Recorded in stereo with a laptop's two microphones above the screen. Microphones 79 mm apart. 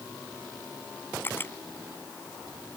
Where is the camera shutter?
25° left (ahead or behind).